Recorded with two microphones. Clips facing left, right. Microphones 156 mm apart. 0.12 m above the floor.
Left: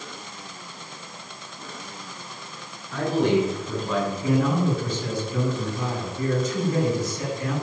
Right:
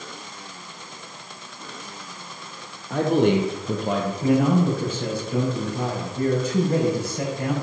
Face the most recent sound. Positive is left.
turn(degrees=-65)  # may be behind; listen again after turning